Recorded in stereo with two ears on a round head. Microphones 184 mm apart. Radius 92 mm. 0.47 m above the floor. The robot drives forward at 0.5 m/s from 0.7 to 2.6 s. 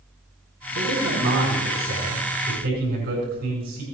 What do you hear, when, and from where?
0.8 s a man speaking: 50° right (ahead or behind), 5 m; by 3.8 s 45° right (ahead or behind), 5.5 m